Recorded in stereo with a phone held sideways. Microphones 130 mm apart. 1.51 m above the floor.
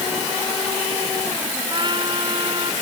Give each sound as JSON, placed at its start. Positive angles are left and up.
{"t": 1.7, "sound": "a trumpet", "side_deg": -35}